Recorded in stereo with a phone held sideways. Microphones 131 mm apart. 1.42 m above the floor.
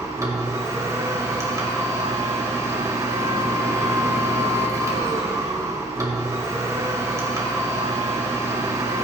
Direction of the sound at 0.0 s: 25° right (ahead or behind).